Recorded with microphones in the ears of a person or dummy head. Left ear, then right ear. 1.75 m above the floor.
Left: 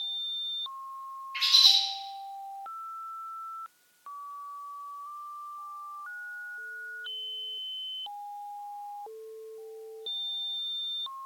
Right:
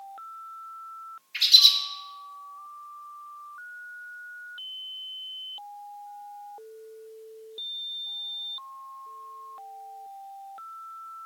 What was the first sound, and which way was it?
A bird, 25° right (ahead or behind).